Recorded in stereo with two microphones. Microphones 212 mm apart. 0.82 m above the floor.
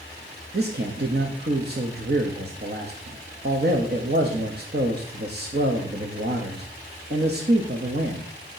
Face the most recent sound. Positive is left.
turn(degrees=-50)  # may be behind; listen again after turning